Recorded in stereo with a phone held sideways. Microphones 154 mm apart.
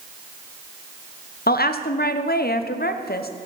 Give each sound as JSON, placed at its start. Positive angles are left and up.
{"t": 1.5, "sound": "a woman speaking", "side_deg": 80, "distance_m": 0.7}